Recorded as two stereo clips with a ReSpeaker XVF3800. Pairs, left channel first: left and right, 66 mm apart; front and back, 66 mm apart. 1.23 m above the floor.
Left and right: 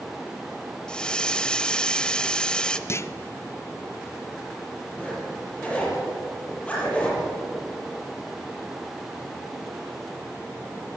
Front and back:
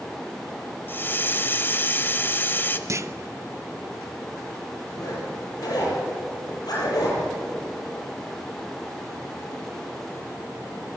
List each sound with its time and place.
0.9 s a hiss: 20° left, 1.1 m
2.9 s a clunk: 135° left, 0.8 m
5.0 s a zipper: 20° left, 7.5 m